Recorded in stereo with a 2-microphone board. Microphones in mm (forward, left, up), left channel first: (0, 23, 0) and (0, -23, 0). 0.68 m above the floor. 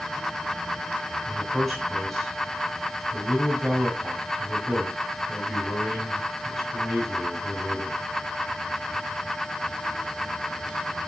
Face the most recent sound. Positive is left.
turn(degrees=0)  # may be behind; listen again after turning